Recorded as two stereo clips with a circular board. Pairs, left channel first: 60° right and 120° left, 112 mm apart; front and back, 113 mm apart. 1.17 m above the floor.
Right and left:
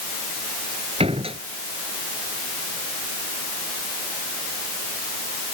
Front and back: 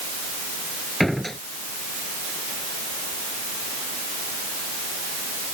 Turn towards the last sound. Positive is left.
turn(degrees=90)